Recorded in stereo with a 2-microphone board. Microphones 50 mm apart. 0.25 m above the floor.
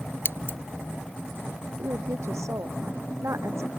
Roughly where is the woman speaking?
Right.